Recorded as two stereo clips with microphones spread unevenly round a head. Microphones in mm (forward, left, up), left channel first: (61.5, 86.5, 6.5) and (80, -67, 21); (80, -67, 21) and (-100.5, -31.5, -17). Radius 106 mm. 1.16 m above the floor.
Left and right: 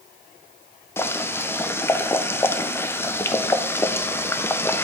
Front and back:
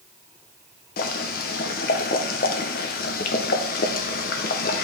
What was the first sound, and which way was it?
Boiling, 30° left.